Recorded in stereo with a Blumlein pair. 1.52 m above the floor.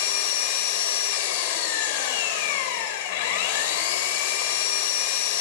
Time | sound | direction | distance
0.0 | an engine running | 50° left | 6 m